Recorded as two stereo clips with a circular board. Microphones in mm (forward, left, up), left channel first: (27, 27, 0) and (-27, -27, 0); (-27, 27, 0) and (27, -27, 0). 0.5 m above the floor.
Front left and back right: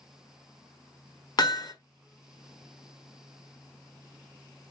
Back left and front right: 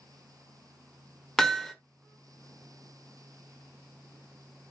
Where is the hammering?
50° left, 1.6 m.